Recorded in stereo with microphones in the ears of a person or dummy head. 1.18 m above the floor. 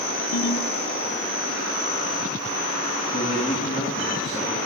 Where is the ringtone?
70° left (ahead or behind), 1.2 m.